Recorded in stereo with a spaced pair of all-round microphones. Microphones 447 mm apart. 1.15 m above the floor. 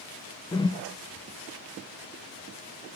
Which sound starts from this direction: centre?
A whoosh, at 0.5 s.